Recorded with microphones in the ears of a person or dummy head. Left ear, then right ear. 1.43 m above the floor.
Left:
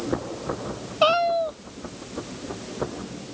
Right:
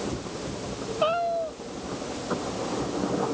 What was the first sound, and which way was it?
A cat meowing, 45° left (ahead or behind).